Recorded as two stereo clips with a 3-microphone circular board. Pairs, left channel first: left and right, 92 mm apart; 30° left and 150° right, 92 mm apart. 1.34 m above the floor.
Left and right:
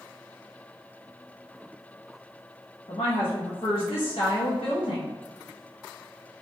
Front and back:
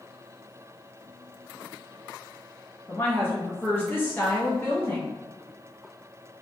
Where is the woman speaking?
95° left, 0.6 m.